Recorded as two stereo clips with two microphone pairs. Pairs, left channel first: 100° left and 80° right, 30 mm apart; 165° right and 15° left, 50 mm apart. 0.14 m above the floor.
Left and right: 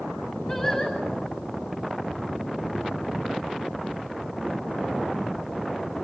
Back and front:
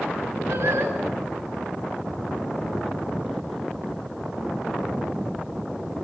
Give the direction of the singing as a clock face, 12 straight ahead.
11 o'clock.